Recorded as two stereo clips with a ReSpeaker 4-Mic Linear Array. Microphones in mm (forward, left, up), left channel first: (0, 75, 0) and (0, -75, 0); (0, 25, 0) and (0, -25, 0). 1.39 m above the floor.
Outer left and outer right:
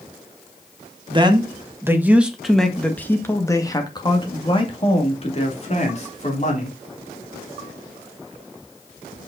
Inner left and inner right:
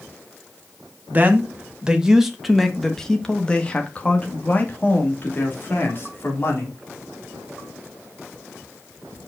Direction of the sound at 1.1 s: 30° right (ahead or behind).